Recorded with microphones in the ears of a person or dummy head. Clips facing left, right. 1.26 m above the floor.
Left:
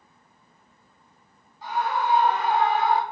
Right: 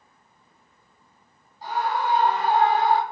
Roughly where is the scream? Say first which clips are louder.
Even; right.